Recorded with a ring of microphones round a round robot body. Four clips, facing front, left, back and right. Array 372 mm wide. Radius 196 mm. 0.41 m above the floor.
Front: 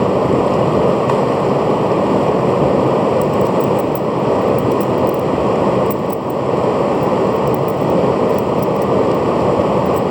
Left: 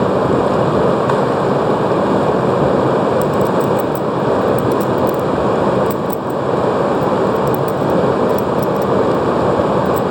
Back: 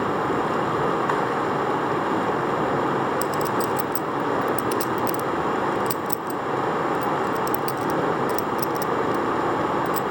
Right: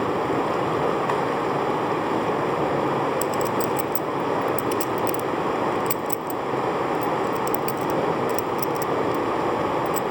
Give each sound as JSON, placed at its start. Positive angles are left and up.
{"t": 0.0, "sound": "running water", "azimuth_deg": 40, "distance_m": 0.7}
{"t": 3.2, "sound": "a clink", "azimuth_deg": -160, "distance_m": 0.8}